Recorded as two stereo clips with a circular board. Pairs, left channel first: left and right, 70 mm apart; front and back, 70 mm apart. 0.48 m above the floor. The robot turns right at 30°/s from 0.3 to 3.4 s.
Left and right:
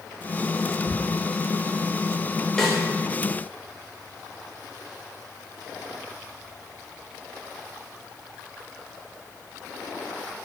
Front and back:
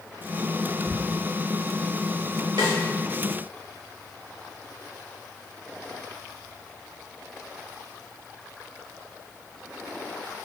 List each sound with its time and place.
0.9 s ticking: 135° left, 1.1 m
2.6 s a snare drum: 175° left, 0.8 m; by 2.8 s straight behind, 0.8 m